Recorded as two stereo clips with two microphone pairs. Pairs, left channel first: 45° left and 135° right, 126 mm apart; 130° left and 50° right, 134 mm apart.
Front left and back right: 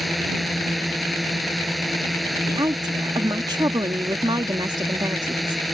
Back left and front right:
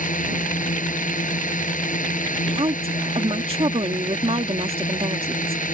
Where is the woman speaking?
85° right.